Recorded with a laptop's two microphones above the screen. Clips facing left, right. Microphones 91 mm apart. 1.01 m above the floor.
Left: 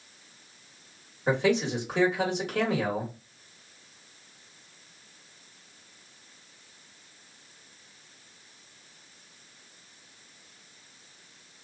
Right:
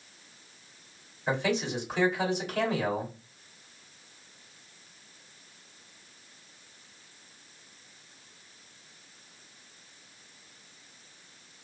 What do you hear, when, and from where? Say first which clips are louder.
1.3 s a man speaking: left 4 dB; 65° left (ahead or behind), 1.7 m